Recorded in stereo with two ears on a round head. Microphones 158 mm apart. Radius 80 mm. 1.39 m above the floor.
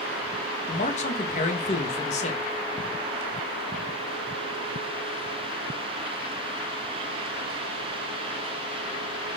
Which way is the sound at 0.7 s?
40° left (ahead or behind).